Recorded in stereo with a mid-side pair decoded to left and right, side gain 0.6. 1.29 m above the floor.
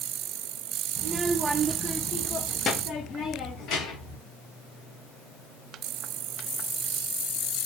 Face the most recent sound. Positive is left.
turn(degrees=60)